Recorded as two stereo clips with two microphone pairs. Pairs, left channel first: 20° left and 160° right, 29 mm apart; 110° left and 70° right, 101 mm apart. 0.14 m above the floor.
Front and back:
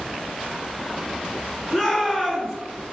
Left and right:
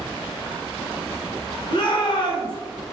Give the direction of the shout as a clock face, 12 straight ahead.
9 o'clock.